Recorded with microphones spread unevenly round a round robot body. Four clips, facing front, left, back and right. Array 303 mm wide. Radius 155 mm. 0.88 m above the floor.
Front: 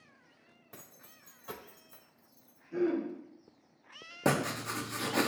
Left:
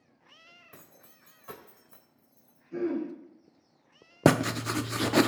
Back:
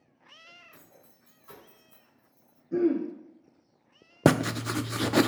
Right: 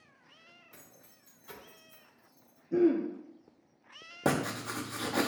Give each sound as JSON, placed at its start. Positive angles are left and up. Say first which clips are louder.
{"t": 0.7, "sound": "keys jangling", "louder": "left 3 dB, front 1 dB", "azimuth_deg": 45, "distance_m": 2.5}
{"t": 2.7, "sound": "throat clearing", "louder": "right 5 dB, back 6 dB", "azimuth_deg": -140, "distance_m": 2.5}
{"t": 4.2, "sound": "writing", "louder": "left 7 dB, back 7 dB", "azimuth_deg": 145, "distance_m": 0.6}